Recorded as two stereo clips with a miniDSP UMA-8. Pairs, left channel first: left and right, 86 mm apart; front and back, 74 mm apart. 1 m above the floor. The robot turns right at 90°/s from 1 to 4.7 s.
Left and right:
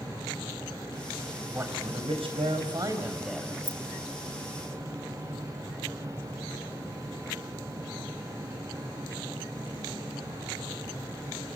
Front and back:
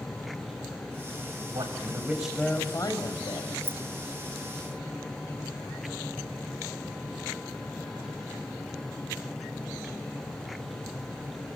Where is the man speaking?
160° right, 5 m; by 3.5 s 20° left, 5 m.